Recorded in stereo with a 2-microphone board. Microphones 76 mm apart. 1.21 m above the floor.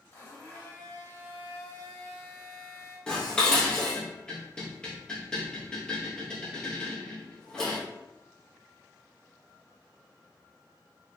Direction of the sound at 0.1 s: 30° left (ahead or behind).